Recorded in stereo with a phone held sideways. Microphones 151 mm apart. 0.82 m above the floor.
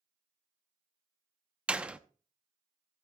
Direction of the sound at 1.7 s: 5° right (ahead or behind).